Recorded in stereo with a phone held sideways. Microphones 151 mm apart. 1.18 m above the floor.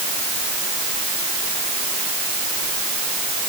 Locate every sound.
Only background noise.